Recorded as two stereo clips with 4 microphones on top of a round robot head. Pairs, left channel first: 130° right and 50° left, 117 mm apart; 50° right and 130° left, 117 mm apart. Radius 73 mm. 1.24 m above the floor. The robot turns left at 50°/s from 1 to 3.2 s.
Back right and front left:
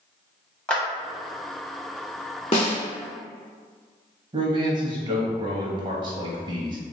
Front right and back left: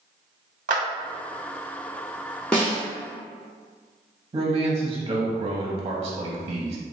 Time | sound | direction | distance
0.7 | a clap | 150° left | 0.9 m
2.5 | a snare drum | 130° right | 0.8 m
4.3 | a man speaking | 85° left | 0.6 m